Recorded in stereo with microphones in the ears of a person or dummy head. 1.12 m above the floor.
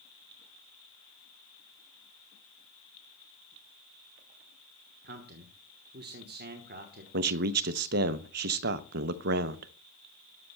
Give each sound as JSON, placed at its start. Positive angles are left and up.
{"t": 5.0, "sound": "a man speaking", "side_deg": -50, "distance_m": 1.0}
{"t": 7.1, "sound": "a man speaking", "side_deg": -55, "distance_m": 0.7}